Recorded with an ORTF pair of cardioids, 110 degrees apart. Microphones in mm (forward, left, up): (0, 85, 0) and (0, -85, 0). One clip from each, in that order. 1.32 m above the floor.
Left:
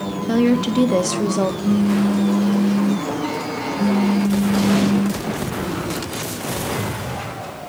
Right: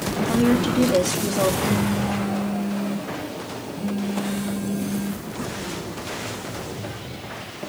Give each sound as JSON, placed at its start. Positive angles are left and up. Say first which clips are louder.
{"t": 0.3, "sound": "a woman speaking", "louder": "left 3 dB", "azimuth_deg": 40, "distance_m": 1.5}
{"t": 1.6, "sound": "a phone buzzing", "louder": "left 3 dB", "azimuth_deg": 65, "distance_m": 3.5}